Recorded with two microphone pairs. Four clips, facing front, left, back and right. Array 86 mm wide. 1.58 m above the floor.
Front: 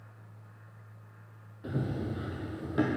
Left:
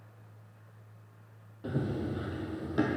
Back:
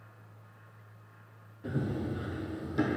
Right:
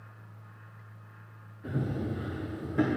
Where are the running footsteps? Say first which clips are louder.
Even, back 1 dB; 65° left, 2.0 m; by 3.0 s 30° left, 2 m.